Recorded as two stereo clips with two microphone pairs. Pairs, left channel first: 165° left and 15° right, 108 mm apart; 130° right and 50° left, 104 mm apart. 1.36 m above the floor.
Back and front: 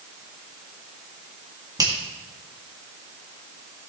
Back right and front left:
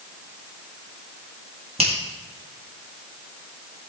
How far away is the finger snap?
About 1.7 m.